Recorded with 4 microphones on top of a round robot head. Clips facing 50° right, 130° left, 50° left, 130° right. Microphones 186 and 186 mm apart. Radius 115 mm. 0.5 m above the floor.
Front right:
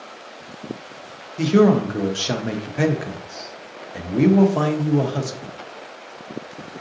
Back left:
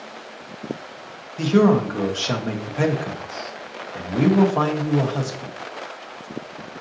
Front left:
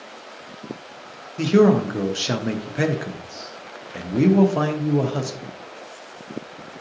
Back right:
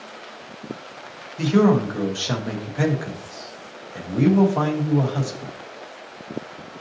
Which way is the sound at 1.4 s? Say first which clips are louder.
Front right 1 dB, front left 2 dB; 15° left.